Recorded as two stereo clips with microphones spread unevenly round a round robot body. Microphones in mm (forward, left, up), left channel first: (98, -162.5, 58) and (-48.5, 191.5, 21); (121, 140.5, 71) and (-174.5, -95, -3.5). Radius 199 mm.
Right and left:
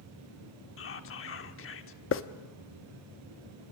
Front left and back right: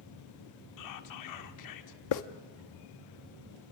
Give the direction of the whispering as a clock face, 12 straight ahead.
12 o'clock.